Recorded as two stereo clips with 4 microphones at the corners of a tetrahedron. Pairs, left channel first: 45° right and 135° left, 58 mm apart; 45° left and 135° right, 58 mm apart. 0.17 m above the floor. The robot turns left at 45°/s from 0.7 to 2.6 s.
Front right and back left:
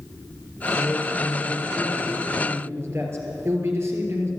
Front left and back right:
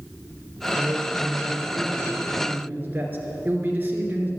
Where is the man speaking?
105° right, 3 m; by 4.3 s 170° left, 3 m.